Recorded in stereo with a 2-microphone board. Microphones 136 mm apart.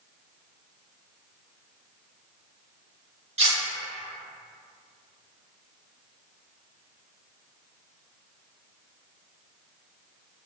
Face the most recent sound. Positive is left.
turn(degrees=-50)  # may be behind; listen again after turning